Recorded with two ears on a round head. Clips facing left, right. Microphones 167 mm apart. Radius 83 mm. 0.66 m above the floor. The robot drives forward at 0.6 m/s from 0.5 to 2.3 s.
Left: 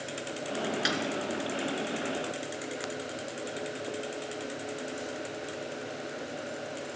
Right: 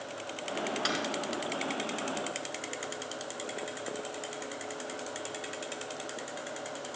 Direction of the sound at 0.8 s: 15° left (ahead or behind).